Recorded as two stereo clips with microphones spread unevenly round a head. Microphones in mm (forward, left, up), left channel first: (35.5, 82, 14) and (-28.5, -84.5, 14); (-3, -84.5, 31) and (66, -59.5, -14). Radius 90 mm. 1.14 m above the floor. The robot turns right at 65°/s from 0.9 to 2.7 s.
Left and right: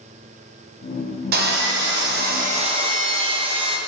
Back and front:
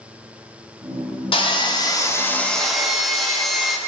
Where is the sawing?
140° right, 1.0 m; by 3.8 s 50° right, 1.0 m.